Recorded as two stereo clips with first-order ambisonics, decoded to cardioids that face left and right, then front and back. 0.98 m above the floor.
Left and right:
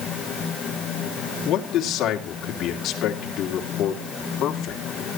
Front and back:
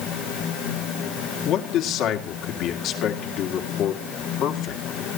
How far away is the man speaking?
About 2.5 m.